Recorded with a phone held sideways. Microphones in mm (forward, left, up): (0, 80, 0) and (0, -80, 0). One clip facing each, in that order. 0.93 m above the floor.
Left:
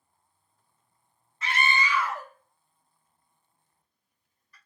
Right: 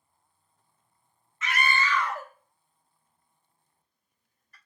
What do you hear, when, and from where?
1.4 s a scream: 35° left (ahead or behind), 0.6 m; by 4.6 s 45° right (ahead or behind), 1.6 m